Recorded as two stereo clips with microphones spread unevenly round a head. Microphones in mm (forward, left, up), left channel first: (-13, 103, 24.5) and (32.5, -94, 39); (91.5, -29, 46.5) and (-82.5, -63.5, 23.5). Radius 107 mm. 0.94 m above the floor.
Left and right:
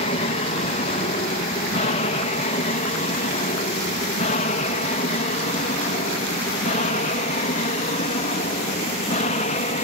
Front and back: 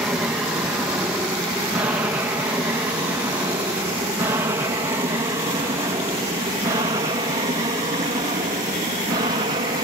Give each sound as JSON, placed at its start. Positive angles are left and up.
{"t": 0.0, "sound": "an aircraft", "azimuth_deg": 115}